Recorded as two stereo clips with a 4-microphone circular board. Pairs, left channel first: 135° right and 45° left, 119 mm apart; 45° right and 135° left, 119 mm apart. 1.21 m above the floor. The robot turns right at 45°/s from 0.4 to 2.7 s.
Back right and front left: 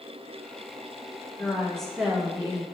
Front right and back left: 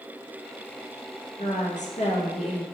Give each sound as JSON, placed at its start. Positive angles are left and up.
{"t": 1.4, "sound": "a woman speaking", "azimuth_deg": -65, "distance_m": 0.6}